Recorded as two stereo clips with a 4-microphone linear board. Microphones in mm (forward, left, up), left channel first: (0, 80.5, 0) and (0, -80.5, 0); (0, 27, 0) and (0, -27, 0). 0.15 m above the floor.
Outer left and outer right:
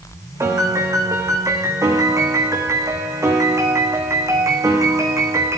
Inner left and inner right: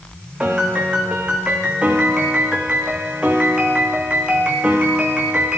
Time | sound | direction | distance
0.4 | a piano | 20° right (ahead or behind) | 3.5 m